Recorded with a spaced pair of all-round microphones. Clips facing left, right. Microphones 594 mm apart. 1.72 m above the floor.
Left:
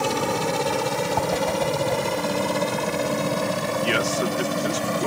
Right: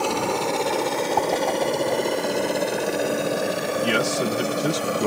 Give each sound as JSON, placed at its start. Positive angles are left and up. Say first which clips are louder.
{"t": 0.0, "sound": "a helicopter", "louder": "even", "side_deg": 40}
{"t": 1.2, "sound": "a whoosh", "louder": "right 1 dB", "side_deg": 35}
{"t": 3.8, "sound": "a man speaking", "louder": "right 2 dB", "side_deg": -60}